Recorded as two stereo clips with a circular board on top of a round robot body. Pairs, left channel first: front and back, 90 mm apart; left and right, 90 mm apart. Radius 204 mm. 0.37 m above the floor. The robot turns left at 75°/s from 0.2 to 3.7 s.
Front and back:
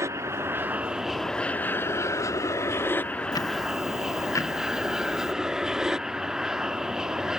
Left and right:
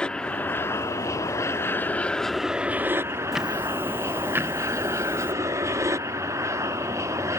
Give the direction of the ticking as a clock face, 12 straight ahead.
12 o'clock.